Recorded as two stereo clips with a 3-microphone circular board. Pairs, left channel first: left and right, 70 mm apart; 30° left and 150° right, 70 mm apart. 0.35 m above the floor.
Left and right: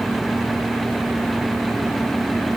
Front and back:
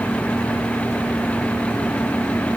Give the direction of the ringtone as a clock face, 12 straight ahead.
I don't hear a ringtone.